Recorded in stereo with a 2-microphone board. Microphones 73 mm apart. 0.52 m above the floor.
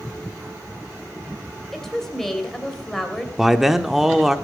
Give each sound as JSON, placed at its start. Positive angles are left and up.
{"t": 1.7, "sound": "a woman speaking", "side_deg": 5, "distance_m": 2.5}
{"t": 3.4, "sound": "a man speaking", "side_deg": -5, "distance_m": 0.9}